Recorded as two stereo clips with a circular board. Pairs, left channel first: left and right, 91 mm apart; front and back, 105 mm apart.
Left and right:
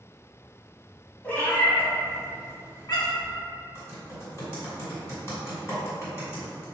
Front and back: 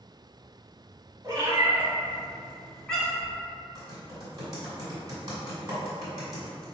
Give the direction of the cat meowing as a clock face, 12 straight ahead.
7 o'clock.